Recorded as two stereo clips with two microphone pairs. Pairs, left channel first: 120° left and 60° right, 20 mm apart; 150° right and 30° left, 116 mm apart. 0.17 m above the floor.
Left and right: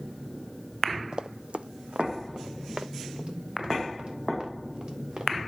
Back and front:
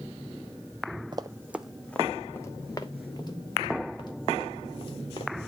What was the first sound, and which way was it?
Running footsteps, 20° right.